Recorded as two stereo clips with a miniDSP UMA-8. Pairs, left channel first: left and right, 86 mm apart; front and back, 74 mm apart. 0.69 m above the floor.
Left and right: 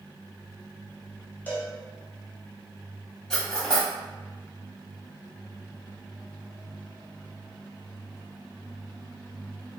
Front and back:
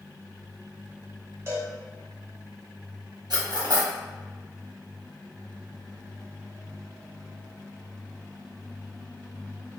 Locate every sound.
1.5 s a cowbell: 150° left, 0.5 m
3.3 s cutlery clinking: 170° left, 0.9 m